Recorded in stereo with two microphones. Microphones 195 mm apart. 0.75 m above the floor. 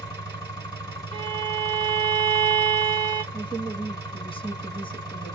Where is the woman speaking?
25° left (ahead or behind), 0.8 m.